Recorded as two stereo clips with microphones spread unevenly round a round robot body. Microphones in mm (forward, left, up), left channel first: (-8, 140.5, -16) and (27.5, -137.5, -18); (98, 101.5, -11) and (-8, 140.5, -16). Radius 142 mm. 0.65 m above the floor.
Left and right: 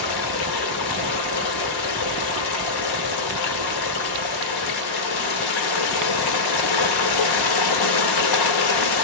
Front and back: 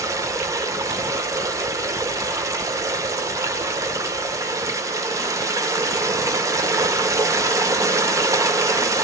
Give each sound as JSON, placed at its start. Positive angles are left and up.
{"t": 0.0, "sound": "running water", "azimuth_deg": 95, "distance_m": 1.1}